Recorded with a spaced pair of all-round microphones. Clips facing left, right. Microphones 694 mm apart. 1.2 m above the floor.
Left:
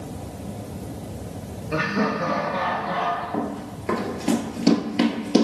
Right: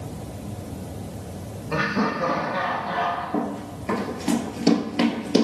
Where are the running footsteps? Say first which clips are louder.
Right 3 dB; 5° left (ahead or behind), 1.3 m.